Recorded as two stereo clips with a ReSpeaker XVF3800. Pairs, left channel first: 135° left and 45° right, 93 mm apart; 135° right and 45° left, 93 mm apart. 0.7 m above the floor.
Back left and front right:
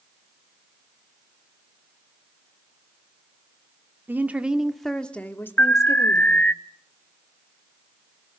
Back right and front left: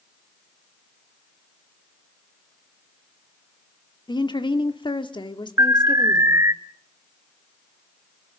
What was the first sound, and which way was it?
A woman speaking, 110° right.